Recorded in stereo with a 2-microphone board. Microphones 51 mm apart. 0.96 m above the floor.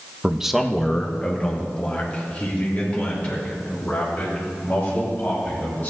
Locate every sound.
0.2 s a man speaking: 20° right (ahead or behind), 0.6 m; by 5.9 s 30° left (ahead or behind), 6 m